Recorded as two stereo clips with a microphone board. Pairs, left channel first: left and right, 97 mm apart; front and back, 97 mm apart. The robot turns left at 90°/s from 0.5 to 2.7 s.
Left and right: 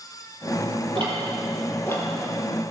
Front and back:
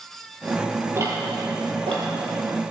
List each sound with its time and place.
0.9 s ticking: 120° right, 4.5 m; by 2.1 s 140° left, 4.5 m